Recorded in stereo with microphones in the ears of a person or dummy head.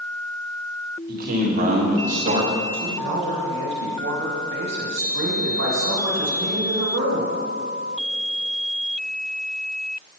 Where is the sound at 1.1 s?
50° right (ahead or behind), 2 m; by 2.5 s 35° right (ahead or behind), 1.5 m.